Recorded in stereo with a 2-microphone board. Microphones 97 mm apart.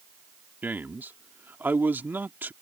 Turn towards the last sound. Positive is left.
turn(degrees=-20)  # may be behind; listen again after turning